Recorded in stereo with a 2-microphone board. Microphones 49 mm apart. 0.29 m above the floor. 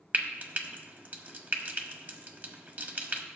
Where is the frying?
35° right (ahead or behind), 1.2 m.